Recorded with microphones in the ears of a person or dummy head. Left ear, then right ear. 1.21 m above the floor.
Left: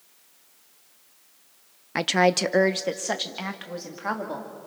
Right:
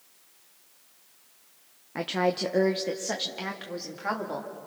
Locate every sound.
1.9 s a woman speaking: 65° left (ahead or behind), 0.8 m; by 4.5 s 10° left (ahead or behind), 2.5 m